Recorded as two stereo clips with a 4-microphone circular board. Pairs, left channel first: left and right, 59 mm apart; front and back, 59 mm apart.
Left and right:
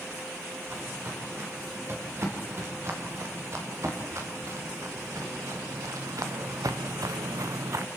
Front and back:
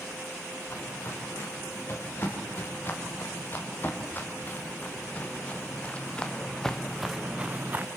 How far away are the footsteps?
About 5.5 m.